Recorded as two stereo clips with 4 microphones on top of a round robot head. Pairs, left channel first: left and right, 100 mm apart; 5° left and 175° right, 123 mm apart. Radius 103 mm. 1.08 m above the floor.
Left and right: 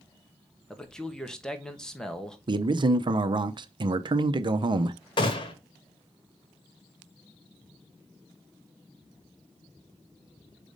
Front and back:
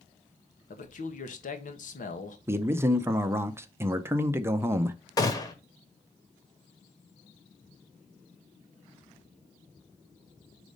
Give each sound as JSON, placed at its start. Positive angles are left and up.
{"t": 0.7, "sound": "a man speaking", "azimuth_deg": 5, "distance_m": 1.2}
{"t": 2.5, "sound": "a man speaking", "azimuth_deg": -110, "distance_m": 0.6}
{"t": 5.2, "sound": "a gunshot", "azimuth_deg": 60, "distance_m": 1.3}